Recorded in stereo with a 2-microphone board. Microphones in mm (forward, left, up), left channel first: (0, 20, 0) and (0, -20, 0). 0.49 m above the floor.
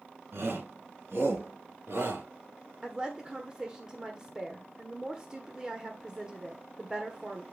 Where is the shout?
75° right (ahead or behind), 5 m; by 2.2 s 85° right, 6.5 m.